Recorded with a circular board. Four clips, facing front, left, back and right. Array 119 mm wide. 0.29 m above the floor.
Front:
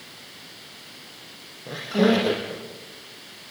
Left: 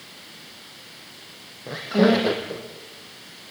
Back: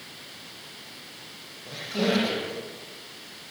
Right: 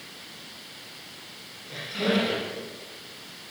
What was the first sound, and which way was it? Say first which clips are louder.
A squeak: left 9 dB, front 6 dB; 75° left.